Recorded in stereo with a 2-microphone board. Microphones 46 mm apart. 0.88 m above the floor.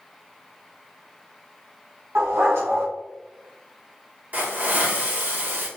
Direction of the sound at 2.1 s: 75° right (ahead or behind).